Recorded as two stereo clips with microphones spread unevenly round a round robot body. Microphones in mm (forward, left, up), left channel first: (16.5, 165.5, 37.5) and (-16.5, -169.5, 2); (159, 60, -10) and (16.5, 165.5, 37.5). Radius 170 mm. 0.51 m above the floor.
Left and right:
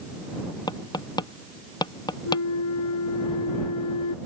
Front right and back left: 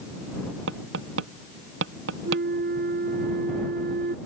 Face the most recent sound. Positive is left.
turn(degrees=125)